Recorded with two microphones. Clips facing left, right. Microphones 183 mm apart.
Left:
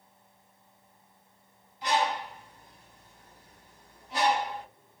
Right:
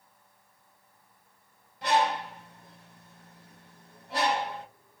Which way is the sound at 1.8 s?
60° right (ahead or behind).